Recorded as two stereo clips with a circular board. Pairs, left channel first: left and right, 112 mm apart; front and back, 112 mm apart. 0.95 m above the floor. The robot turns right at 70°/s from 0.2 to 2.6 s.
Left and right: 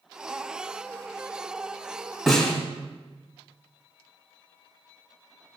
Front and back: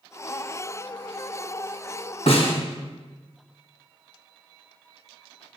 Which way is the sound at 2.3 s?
Straight ahead.